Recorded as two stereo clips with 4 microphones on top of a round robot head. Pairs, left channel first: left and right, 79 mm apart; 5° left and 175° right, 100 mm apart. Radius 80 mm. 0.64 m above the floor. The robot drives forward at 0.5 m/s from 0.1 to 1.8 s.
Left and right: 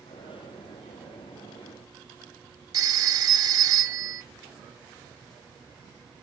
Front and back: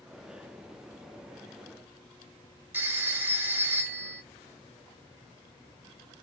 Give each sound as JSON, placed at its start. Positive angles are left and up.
{"t": 2.7, "sound": "a phone ringing", "azimuth_deg": -110, "distance_m": 0.8}